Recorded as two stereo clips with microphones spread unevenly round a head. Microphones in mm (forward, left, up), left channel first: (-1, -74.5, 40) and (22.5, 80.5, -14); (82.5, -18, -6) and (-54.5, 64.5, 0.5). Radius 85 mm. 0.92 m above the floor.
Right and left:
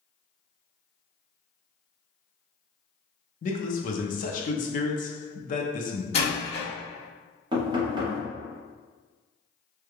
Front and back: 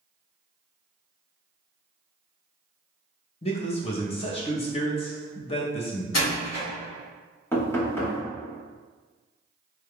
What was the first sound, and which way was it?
A man speaking, 60° right.